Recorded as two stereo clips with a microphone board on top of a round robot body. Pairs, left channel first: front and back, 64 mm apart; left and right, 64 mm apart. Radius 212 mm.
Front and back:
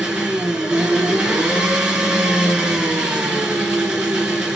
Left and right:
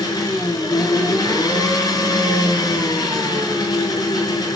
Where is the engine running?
100° left, 5 m.